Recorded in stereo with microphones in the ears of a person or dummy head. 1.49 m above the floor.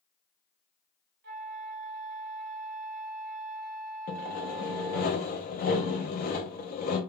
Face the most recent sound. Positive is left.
turn(degrees=40)  # may be behind; listen again after turning